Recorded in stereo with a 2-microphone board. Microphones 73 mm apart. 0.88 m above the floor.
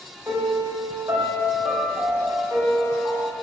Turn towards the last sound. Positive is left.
turn(degrees=-50)  # may be behind; listen again after turning